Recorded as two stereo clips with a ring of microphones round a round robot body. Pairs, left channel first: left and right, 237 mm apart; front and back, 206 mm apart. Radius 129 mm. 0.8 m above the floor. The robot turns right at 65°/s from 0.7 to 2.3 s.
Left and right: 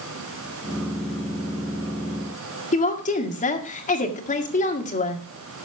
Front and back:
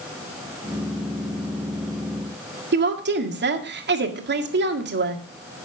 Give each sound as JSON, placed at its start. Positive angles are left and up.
{"t": 2.7, "sound": "a woman speaking", "azimuth_deg": 150, "distance_m": 1.9}